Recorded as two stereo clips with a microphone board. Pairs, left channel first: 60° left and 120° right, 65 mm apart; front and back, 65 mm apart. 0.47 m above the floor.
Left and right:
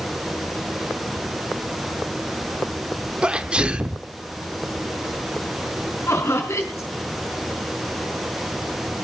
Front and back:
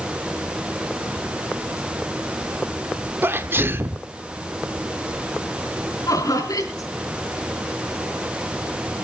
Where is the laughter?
15° left, 5 m.